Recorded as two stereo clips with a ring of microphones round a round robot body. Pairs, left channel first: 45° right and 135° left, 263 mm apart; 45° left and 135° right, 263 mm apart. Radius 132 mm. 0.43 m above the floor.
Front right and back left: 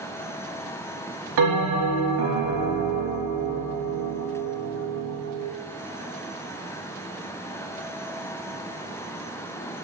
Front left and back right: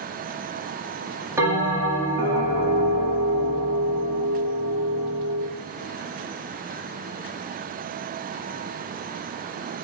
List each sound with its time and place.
1.4 s a bell: 145° left, 1.7 m